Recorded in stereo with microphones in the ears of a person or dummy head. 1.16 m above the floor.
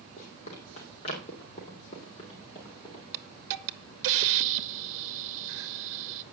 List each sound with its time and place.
0.2 s running footsteps: 35° left (ahead or behind), 4 m; by 3.0 s 20° left (ahead or behind), 5 m
3.1 s a hiss: 60° right (ahead or behind), 0.9 m